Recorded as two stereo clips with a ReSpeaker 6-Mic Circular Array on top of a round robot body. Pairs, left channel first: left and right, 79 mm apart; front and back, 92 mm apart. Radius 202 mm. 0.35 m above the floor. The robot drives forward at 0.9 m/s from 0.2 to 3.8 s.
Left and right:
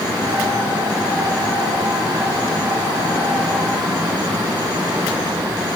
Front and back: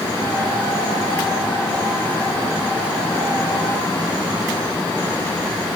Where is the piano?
No piano in this recording.